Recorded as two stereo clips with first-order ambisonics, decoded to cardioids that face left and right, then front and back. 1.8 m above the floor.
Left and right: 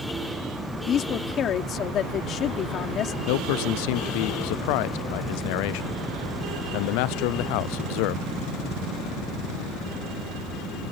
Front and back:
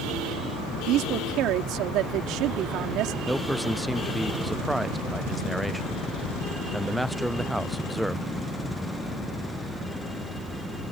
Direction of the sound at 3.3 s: 90° left.